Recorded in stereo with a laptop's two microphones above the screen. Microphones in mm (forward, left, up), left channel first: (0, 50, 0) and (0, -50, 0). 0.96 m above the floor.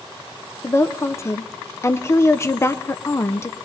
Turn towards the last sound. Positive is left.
turn(degrees=25)  # may be behind; listen again after turning